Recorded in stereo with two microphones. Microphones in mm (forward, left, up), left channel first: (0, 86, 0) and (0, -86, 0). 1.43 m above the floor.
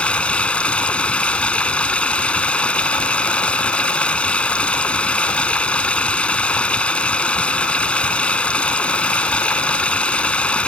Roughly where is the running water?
Centre.